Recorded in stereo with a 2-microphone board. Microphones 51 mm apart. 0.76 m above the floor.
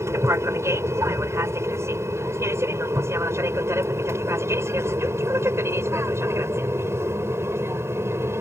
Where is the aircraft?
65° right (ahead or behind); by 8.4 s 55° right (ahead or behind).